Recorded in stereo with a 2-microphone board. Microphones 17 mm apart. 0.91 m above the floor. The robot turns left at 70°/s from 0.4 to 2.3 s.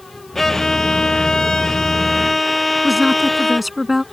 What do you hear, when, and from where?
0.3 s a violin: 150° left; by 3.7 s 20° left
2.8 s a woman speaking: 10° right (ahead or behind)